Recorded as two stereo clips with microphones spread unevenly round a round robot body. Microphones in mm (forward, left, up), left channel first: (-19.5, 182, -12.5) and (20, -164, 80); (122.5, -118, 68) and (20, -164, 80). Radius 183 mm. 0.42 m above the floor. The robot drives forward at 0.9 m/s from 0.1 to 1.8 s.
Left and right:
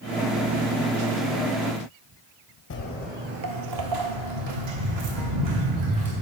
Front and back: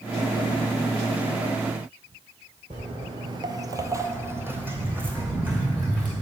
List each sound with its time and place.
2.7 s footsteps: 160° left, 0.6 m; by 6.1 s 80° right, 3 m